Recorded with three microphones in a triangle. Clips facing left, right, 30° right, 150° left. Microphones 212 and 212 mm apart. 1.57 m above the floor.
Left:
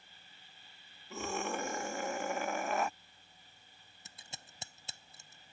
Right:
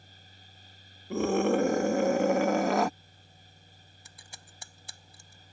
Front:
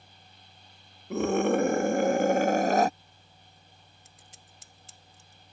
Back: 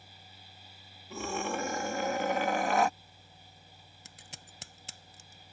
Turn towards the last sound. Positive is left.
turn(degrees=155)